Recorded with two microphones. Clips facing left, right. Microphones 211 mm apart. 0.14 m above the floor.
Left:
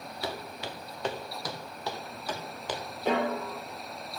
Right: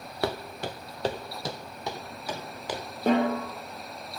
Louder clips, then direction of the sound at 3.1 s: Right 5 dB; 50° right (ahead or behind).